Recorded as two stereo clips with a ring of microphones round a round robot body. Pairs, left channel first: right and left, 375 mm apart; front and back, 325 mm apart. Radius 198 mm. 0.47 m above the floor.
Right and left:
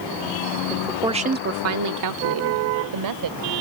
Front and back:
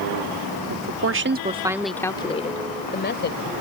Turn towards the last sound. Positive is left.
turn(degrees=55)